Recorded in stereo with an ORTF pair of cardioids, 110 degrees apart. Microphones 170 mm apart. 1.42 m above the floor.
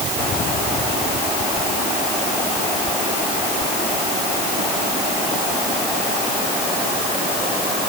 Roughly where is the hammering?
I don't hear hammering.